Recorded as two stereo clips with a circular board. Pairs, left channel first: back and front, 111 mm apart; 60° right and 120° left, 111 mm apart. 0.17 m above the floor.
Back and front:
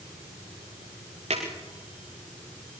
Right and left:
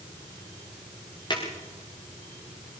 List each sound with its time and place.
1.3 s a drawer: 10° right, 7 m